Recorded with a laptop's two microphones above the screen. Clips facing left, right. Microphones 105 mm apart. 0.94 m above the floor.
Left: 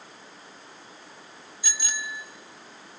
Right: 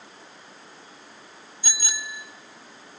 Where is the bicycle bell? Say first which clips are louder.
Left 1 dB; 40° right (ahead or behind), 2.5 m.